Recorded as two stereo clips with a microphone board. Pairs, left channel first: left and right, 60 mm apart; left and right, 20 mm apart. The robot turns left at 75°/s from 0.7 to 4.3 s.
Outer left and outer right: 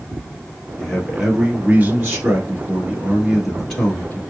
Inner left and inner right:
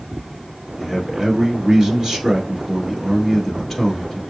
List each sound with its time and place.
0.8 s a man speaking: 30° left, 1.7 m; by 4.2 s 130° left, 1.7 m